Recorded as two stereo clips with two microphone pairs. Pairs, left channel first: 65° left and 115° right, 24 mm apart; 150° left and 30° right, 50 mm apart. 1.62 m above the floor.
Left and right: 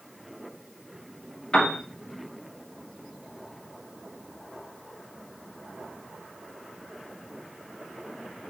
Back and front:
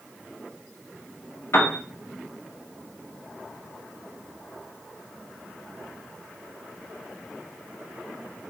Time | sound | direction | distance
1.5 | a piano | 115° left | 0.6 m